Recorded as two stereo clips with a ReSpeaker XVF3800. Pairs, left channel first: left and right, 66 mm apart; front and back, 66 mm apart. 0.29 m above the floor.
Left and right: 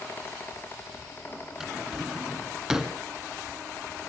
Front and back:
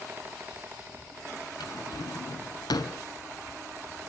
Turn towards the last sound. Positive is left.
turn(degrees=-10)